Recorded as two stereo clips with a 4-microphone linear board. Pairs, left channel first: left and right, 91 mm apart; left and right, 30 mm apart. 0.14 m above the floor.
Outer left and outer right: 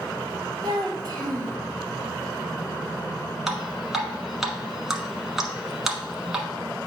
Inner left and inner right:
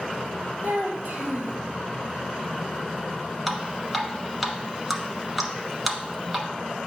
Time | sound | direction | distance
0.6 | a child speaking | 55° right (ahead or behind) | 2 m
3.5 | dripping | 5° right (ahead or behind) | 1.1 m